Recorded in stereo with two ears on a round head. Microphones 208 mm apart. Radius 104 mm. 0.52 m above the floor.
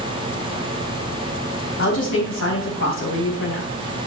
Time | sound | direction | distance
1.8 | a woman speaking | 60° left (ahead or behind) | 4 m